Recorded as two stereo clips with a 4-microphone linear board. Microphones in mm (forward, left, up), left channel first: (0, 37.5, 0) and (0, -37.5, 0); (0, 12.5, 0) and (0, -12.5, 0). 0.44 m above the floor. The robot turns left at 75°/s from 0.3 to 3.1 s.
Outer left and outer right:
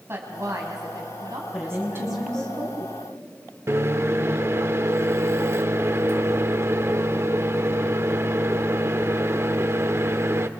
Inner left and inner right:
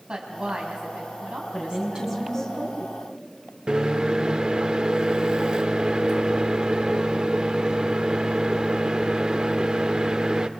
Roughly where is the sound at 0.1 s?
Ahead right.